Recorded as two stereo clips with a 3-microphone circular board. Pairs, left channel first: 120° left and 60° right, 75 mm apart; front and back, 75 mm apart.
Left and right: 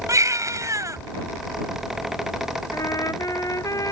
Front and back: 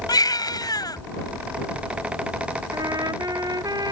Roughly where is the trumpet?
Behind left.